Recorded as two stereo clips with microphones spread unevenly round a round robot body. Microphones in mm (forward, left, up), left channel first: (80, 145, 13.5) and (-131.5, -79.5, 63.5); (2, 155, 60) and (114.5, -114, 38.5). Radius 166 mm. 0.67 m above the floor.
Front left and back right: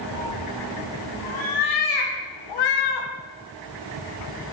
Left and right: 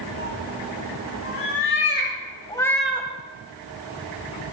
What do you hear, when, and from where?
0.1 s a cat meowing: 80° left, 4.5 m; by 3.1 s 10° left, 1.8 m